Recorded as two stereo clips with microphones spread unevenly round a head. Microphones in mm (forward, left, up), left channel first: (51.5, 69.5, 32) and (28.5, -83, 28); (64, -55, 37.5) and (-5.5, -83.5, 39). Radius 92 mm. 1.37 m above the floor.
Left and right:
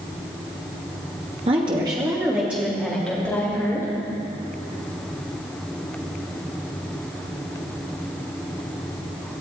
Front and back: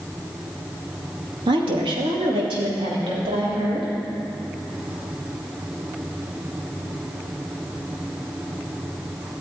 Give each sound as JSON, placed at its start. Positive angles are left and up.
{"t": 1.5, "sound": "a woman speaking", "azimuth_deg": -160, "distance_m": 2.5}